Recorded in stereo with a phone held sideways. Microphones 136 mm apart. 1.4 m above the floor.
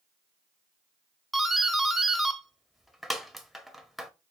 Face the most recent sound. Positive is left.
turn(degrees=0)  # may be behind; listen again after turning